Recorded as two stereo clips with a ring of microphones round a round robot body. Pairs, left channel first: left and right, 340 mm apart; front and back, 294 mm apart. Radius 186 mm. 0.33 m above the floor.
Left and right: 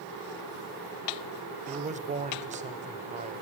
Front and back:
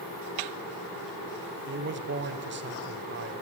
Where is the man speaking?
150° right, 1.6 m.